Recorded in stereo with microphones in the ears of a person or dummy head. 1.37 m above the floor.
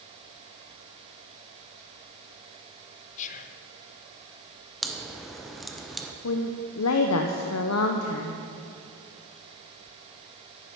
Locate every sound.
3.2 s whispering: 40° left (ahead or behind), 0.7 m
4.8 s a crack: centre (ahead or behind), 0.7 m
6.2 s a woman speaking: 80° left, 0.8 m